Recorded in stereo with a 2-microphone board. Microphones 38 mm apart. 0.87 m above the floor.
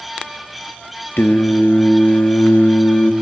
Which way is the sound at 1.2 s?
70° left (ahead or behind).